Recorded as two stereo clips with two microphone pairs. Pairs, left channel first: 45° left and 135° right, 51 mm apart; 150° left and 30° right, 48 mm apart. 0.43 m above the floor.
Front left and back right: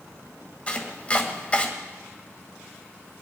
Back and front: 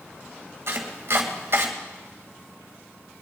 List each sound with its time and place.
0.7 s chopping: 15° right, 2 m